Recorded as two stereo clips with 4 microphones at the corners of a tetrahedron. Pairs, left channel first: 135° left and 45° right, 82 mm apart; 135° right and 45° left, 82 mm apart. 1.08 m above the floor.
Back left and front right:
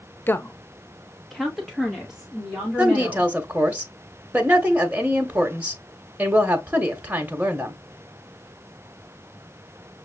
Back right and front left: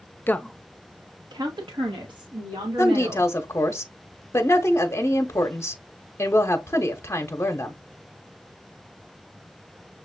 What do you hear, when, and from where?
0.3 s a woman speaking: 175° left, 0.5 m; by 3.3 s 40° left, 2.5 m
2.8 s a woman speaking: 105° right, 0.8 m